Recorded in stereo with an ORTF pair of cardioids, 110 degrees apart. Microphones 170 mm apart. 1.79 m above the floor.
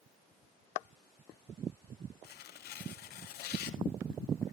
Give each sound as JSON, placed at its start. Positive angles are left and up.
{"t": 2.2, "sound": "tearing paper", "azimuth_deg": 70, "distance_m": 1.3}